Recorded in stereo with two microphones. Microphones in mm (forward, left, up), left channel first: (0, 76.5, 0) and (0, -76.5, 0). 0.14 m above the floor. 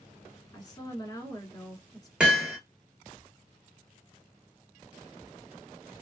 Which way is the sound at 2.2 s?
10° right (ahead or behind).